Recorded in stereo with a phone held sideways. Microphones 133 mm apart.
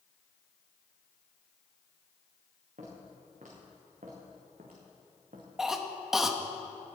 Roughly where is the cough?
Centre.